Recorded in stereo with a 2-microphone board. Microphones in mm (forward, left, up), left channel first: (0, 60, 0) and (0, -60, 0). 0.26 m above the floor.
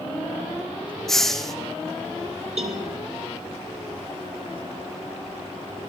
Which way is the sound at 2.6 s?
65° right (ahead or behind).